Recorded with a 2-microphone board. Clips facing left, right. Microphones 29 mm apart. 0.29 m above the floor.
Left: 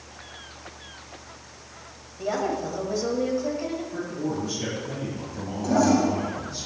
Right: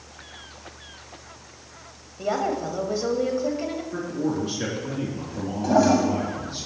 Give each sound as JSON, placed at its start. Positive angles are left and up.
{"t": 2.2, "sound": "a woman speaking", "side_deg": -20, "distance_m": 1.2}
{"t": 3.9, "sound": "a man speaking", "side_deg": -70, "distance_m": 3.5}
{"t": 5.6, "sound": "a toilet flushing", "side_deg": -30, "distance_m": 1.5}